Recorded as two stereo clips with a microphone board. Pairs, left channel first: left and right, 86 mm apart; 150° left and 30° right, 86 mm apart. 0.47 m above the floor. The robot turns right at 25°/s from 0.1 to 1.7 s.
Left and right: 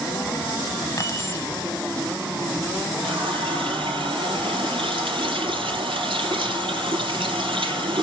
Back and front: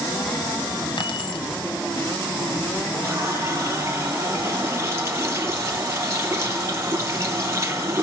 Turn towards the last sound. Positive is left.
turn(degrees=-90)